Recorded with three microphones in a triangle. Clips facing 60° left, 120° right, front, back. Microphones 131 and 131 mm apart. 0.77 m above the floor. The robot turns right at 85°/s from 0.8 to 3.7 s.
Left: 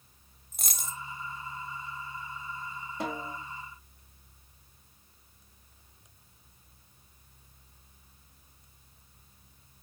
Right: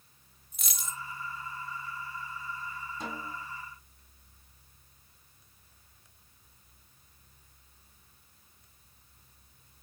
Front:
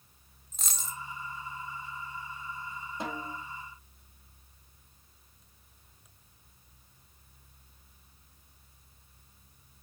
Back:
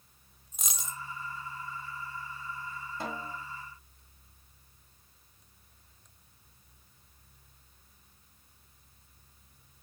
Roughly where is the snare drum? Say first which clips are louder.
Left 6 dB, front 1 dB; left.